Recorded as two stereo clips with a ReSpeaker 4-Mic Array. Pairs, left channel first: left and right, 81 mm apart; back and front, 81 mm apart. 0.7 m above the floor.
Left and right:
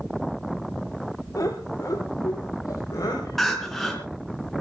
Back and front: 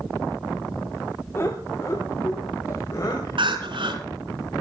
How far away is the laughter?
About 2.5 m.